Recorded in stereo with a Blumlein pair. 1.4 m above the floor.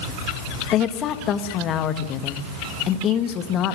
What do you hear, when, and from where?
0.7 s a woman speaking: 30° left, 2 m